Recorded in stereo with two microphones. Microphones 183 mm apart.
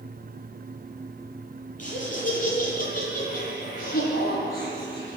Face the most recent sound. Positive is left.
turn(degrees=55)  # may be behind; listen again after turning